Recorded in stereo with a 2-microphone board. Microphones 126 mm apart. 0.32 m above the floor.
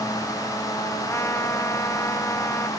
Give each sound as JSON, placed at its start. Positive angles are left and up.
{"t": 1.1, "sound": "a trumpet", "side_deg": 20}